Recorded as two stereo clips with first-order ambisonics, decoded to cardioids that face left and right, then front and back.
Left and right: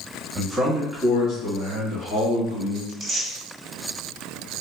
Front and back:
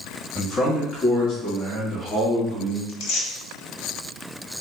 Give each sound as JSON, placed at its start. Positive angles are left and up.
{"t": 0.3, "sound": "a man speaking", "azimuth_deg": -40, "distance_m": 1.1}
{"t": 2.9, "sound": "tearing paper", "azimuth_deg": -10, "distance_m": 1.1}